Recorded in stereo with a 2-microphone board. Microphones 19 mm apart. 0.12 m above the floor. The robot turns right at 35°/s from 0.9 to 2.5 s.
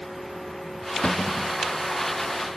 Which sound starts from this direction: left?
A cupboard door, at 1.0 s.